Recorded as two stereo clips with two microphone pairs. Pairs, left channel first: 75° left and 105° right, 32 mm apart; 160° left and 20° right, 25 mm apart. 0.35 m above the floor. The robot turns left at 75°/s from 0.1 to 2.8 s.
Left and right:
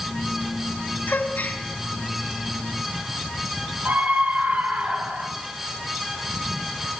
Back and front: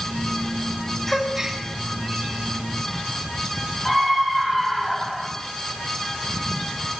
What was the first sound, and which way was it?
A gasp, 75° left.